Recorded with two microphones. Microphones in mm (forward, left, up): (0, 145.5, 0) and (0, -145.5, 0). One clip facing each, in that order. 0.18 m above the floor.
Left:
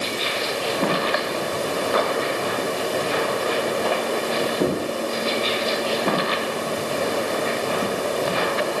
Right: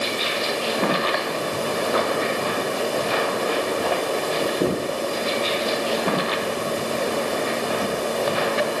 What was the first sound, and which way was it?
Only background noise.